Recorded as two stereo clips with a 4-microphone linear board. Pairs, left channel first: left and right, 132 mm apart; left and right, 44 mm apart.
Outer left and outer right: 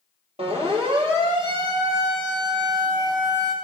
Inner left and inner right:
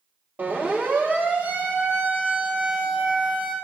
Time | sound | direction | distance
0.4 | a siren | 50° right (ahead or behind) | 6.5 m